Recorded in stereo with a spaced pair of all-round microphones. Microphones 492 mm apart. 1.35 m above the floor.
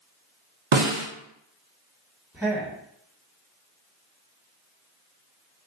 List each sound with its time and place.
0.7 s a snare drum: 70° right (ahead or behind), 0.8 m
2.3 s a man speaking: 5° right (ahead or behind), 1.6 m